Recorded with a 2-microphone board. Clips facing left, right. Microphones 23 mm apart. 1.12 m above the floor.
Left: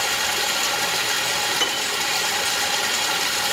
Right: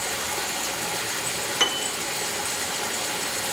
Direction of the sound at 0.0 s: 55° left (ahead or behind).